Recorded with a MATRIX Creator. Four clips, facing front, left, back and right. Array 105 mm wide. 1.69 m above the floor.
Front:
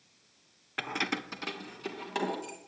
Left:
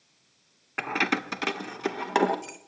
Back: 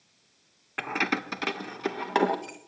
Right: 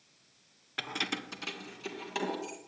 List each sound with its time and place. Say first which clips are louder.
0.8 s keys jangling: left 10 dB, back 5 dB; 110° left, 0.6 m; by 2.6 s 130° left, 1.8 m